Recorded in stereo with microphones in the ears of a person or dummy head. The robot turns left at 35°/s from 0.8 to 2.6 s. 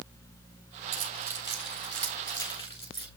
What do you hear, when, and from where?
0.9 s keys jangling: 35° right (ahead or behind), 4 m; by 3.1 s 25° left (ahead or behind), 4 m